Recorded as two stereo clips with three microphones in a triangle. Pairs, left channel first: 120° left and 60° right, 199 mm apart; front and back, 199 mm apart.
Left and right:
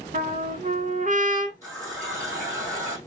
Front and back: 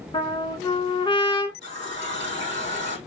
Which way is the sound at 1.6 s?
10° right.